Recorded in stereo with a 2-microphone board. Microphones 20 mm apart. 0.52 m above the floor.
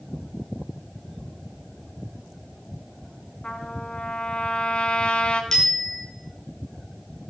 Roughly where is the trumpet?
Left.